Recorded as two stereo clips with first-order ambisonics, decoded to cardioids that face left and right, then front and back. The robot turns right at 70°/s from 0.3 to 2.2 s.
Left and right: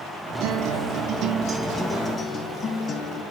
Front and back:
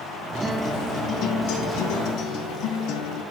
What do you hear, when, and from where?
0.4 s a guitar: 100° right, 0.8 m; by 3.2 s 25° left, 0.8 m